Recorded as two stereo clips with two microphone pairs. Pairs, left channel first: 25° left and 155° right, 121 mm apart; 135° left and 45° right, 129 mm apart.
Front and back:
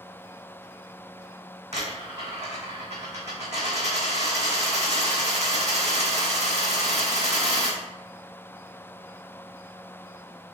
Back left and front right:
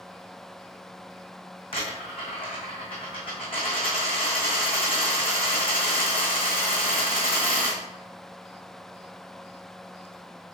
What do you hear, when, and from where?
1.7 s a dropped coin: 175° right, 1.9 m